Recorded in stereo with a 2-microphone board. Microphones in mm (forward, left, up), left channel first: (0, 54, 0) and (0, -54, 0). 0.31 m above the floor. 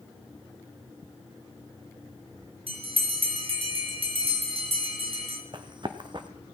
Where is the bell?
65° right (ahead or behind), 2.5 m.